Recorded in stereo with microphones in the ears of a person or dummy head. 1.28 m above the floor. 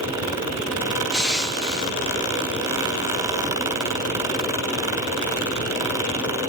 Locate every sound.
1.1 s crushing: centre (ahead or behind), 0.9 m